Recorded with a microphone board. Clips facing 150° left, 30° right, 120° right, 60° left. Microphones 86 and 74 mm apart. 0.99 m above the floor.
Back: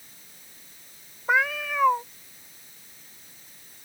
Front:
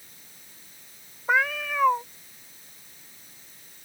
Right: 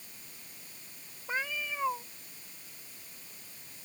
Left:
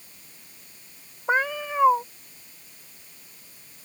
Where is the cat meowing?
60° left.